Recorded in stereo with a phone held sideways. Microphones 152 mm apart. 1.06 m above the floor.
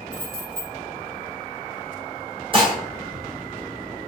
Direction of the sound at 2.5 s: 35° right (ahead or behind).